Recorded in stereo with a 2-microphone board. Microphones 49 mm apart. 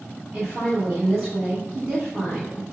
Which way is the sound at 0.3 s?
15° right (ahead or behind).